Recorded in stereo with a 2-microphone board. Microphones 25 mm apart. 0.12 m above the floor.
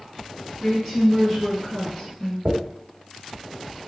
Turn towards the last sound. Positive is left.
turn(degrees=-80)